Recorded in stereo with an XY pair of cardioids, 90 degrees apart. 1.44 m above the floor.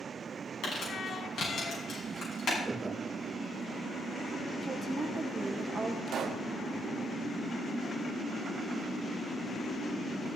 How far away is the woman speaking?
About 1.0 m.